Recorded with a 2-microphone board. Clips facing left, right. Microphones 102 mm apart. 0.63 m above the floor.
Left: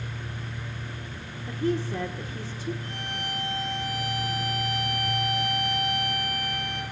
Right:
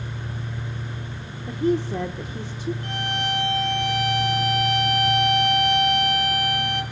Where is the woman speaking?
20° right (ahead or behind), 1.2 m.